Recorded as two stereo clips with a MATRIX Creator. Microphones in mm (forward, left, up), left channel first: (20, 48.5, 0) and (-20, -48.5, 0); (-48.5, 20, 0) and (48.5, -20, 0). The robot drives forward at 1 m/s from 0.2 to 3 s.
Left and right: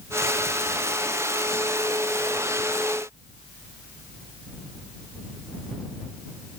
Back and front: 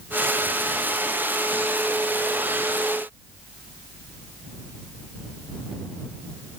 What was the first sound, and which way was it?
Only background noise.